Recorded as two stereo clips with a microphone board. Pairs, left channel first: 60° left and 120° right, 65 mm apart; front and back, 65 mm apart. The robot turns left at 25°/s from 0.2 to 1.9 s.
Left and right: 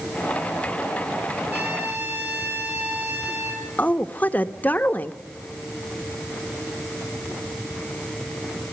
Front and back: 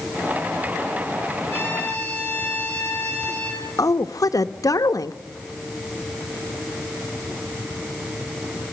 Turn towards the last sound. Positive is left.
turn(degrees=0)